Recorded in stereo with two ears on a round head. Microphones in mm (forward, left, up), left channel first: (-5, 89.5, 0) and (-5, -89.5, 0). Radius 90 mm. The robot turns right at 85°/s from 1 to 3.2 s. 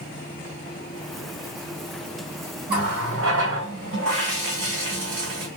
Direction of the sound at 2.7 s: 130° right.